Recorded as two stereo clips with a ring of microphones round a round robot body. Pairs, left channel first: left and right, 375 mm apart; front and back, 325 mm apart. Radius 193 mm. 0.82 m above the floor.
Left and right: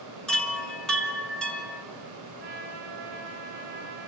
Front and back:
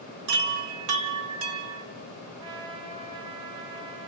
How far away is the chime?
About 4 m.